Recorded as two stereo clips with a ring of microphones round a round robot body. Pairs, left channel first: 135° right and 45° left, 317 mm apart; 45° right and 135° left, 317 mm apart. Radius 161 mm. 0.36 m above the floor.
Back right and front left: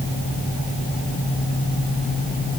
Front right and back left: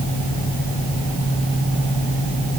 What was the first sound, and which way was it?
Only background noise.